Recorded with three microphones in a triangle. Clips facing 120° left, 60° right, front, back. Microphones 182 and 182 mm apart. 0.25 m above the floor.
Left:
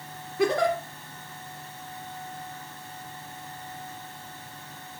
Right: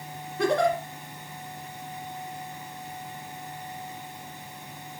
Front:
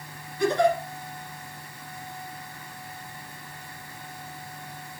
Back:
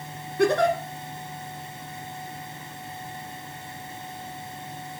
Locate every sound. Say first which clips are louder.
0.4 s a giggle: even, back 1 dB; 150° right, 1.9 m